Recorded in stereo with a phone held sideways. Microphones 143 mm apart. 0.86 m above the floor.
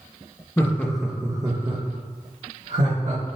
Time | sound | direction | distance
0.6 | laughter | 20° left (ahead or behind) | 0.6 m